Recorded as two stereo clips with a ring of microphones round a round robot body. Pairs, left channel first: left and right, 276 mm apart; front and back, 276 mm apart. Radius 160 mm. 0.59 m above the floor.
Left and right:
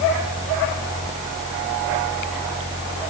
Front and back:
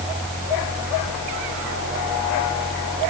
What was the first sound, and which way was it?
Only background noise.